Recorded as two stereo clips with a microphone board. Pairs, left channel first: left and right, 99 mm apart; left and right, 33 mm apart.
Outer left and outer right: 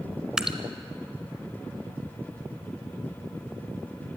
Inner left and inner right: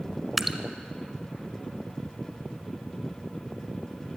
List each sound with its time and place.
0.4 s dripping: 10° right (ahead or behind), 1.1 m